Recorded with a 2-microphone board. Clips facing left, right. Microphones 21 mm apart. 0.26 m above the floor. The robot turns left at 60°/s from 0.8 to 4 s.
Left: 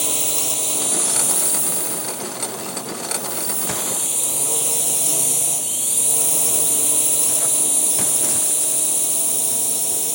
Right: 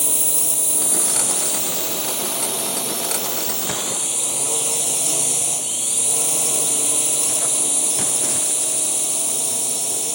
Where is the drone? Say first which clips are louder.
Left 1 dB; 25° left; by 10.2 s 165° right.